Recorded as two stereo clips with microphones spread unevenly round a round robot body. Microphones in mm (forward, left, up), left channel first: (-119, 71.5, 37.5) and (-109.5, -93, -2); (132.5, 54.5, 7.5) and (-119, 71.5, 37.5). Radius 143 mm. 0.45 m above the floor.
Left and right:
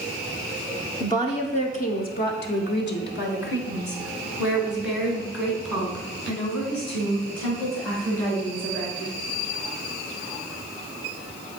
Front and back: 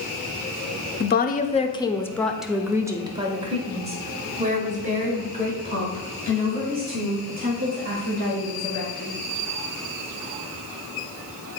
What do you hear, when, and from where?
1.0 s a woman speaking: 10° left, 0.9 m; by 9.1 s 120° left, 4.5 m